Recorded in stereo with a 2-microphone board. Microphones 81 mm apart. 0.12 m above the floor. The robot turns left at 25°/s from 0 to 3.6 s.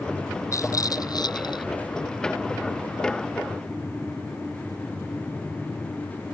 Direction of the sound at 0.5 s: 40° left (ahead or behind).